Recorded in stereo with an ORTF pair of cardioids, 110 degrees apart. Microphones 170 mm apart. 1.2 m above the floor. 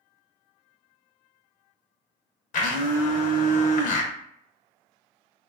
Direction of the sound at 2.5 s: 50° left.